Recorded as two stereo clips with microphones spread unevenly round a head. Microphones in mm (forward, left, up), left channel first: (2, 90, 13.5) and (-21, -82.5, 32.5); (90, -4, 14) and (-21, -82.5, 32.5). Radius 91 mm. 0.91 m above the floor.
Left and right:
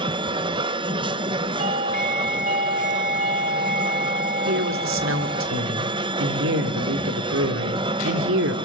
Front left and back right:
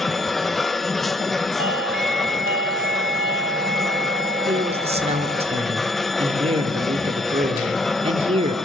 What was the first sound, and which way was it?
A machine running, 40° right.